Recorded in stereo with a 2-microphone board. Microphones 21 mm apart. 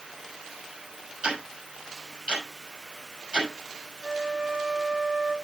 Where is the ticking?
50° right (ahead or behind), 6 m.